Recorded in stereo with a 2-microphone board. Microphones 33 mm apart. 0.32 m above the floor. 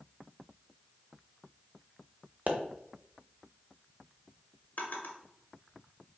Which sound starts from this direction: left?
A drawer, at 4.8 s.